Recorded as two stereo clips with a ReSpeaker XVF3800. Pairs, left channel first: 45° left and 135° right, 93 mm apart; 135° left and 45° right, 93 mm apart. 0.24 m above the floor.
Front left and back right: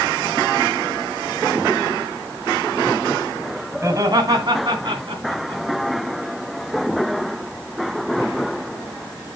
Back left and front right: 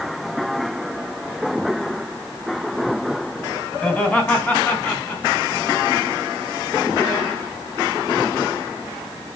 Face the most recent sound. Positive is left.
turn(degrees=-160)